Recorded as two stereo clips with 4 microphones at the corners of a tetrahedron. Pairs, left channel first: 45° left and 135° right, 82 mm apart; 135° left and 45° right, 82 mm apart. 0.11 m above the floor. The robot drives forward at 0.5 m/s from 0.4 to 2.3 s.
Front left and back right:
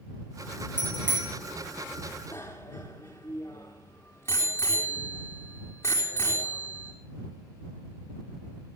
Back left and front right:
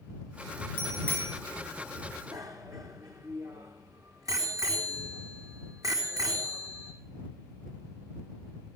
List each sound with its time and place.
0.8 s a bicycle bell: 155° right, 7.5 m; by 1.3 s 160° right, 8 m
2.3 s a bicycle bell: 10° right, 3 m